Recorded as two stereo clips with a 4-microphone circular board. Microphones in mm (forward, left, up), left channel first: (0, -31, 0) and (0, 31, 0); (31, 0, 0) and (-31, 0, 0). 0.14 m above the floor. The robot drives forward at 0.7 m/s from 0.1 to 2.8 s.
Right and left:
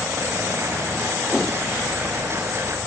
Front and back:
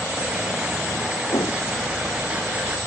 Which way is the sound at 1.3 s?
5° left.